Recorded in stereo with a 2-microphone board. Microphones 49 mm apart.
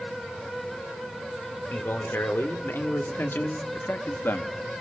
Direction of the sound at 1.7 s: 50° left (ahead or behind).